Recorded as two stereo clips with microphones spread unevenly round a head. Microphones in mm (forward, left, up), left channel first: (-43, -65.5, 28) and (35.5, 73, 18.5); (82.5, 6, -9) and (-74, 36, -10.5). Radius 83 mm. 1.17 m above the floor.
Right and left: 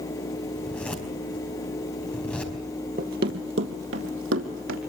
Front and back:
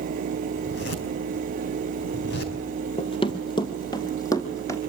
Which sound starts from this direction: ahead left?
Running footsteps, at 3.0 s.